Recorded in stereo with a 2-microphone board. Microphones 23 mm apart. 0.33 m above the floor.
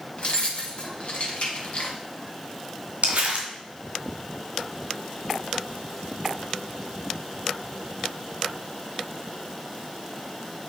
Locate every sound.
0.2 s keys jangling: 50° left (ahead or behind), 1.8 m
3.0 s crumpling: 70° right (ahead or behind), 2 m